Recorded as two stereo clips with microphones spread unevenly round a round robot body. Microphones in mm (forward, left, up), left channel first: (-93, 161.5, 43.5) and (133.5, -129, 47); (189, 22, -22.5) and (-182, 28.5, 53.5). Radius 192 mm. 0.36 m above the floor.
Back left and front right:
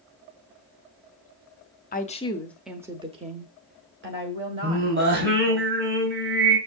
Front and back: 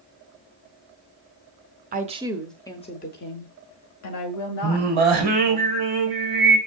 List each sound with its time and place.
1.9 s a woman speaking: 120° left, 0.9 m; by 5.6 s 5° right, 2.5 m
4.6 s singing: 110° right, 1.5 m